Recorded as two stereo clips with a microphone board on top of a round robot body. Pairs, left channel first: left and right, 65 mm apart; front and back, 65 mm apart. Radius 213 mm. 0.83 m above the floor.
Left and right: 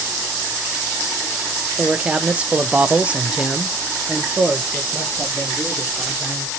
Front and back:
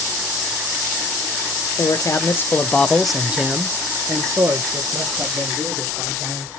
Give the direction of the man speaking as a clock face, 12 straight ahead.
1 o'clock.